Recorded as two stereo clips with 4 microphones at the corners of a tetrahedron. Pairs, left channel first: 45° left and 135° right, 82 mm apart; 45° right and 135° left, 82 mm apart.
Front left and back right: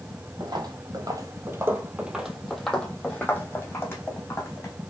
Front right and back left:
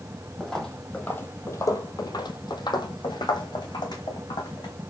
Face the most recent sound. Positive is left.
turn(degrees=-10)